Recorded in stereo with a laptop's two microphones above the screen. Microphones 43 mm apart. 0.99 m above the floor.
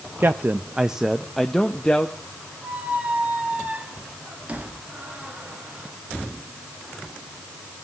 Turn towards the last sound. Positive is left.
turn(degrees=-35)  # may be behind; listen again after turning